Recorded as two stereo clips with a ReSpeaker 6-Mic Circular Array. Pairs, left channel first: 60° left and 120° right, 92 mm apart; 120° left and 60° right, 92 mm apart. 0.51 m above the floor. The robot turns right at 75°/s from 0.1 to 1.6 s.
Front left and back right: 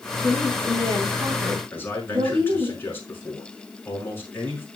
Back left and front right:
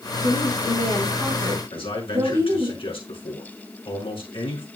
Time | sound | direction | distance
0.2 | a woman speaking | 150° left | 5.5 m
1.7 | a man speaking | 125° left | 5.5 m